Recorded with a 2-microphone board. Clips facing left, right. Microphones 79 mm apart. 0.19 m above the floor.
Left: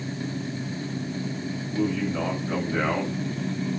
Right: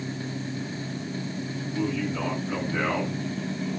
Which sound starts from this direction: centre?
A man speaking, at 1.7 s.